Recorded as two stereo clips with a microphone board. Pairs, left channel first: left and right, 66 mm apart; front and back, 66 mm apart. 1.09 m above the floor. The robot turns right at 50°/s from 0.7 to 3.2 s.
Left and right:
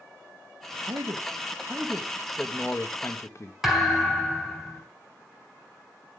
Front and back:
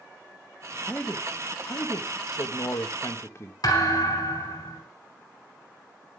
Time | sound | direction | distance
0.9 | a man speaking | 70° right | 1.4 m
3.6 | a thud | 5° right | 4 m